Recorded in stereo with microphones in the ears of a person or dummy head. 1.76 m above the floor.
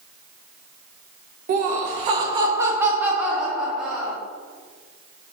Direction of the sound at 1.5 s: 45° right (ahead or behind).